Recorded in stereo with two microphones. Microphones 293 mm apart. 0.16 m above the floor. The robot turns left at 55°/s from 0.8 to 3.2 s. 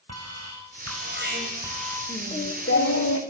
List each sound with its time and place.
0.1 s an alarm: 125° right, 7 m; by 2.0 s 170° left, 7 m
2.1 s singing: 165° left, 5 m; by 3.2 s 105° left, 5 m